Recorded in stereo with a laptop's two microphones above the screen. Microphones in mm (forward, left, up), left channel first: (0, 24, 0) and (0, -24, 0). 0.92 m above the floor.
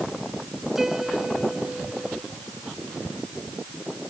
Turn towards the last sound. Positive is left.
turn(degrees=-10)  # may be behind; listen again after turning